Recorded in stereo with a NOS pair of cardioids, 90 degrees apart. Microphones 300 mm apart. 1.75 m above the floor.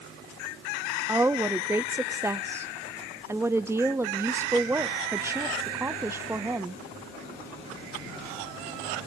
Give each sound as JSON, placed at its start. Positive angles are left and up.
{"t": 1.1, "sound": "a woman speaking", "azimuth_deg": -10, "distance_m": 0.6}